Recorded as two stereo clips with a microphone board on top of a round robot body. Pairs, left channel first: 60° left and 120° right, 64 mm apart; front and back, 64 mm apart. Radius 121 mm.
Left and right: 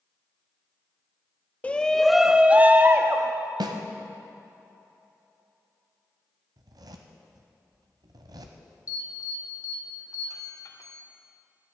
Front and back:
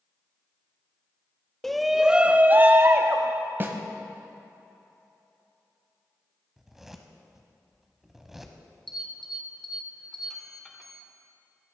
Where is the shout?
75° left, 0.7 m; by 3.3 s 150° right, 0.9 m.